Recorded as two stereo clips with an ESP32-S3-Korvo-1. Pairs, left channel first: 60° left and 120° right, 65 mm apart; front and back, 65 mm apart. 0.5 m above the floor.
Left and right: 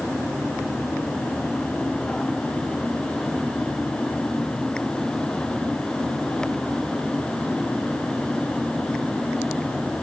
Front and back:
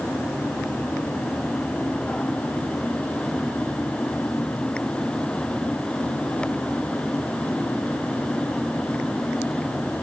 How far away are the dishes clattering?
No dishes clattering in this recording.